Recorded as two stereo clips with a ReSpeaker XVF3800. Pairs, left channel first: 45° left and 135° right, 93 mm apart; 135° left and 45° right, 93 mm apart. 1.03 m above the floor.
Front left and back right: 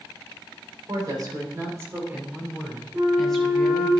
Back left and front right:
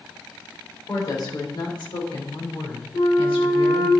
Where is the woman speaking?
175° right, 3 m; by 3.9 s 120° left, 3.5 m.